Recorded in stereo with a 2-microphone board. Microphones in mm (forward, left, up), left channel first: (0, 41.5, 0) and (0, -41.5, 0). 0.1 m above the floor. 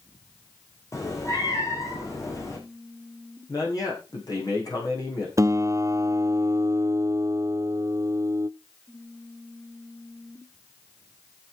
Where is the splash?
I don't hear a splash.